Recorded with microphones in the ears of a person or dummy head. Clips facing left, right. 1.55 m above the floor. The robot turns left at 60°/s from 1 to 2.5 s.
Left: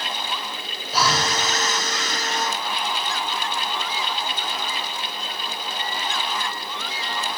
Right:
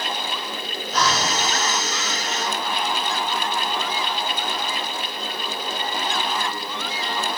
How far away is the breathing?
About 5 m.